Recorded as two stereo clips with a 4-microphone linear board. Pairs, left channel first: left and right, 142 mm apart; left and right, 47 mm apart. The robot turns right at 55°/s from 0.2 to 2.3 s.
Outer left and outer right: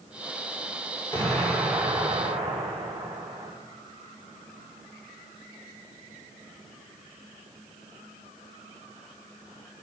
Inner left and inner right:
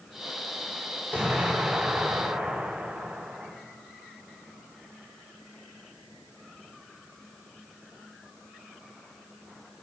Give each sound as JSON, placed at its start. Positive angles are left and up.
{"t": 1.1, "sound": "an explosion", "azimuth_deg": 165, "distance_m": 6.0}